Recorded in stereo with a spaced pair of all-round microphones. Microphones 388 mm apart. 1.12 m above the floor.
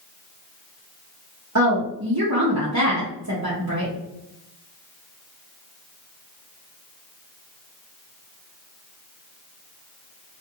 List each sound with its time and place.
1.6 s a woman speaking: 45° right (ahead or behind), 0.6 m